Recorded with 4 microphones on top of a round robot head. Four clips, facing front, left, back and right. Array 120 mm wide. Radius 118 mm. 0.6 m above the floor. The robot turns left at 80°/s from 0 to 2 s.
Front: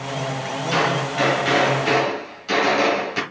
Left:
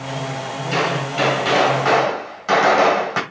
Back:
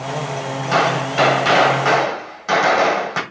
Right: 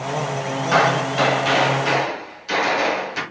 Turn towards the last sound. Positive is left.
turn(degrees=135)